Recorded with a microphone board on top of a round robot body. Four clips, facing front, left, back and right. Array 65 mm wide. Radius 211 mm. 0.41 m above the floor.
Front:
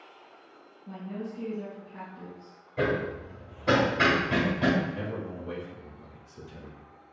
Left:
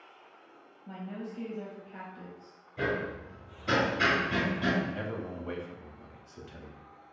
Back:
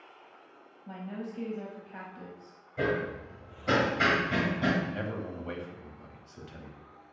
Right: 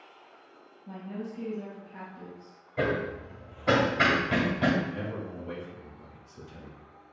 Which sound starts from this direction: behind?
A woman speaking, at 0.9 s.